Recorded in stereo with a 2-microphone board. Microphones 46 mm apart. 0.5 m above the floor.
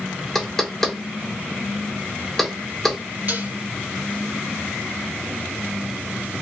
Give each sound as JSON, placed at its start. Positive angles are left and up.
{"t": 0.3, "sound": "knocking", "side_deg": 5, "distance_m": 0.6}
{"t": 3.3, "sound": "dishes clattering", "side_deg": -40, "distance_m": 1.2}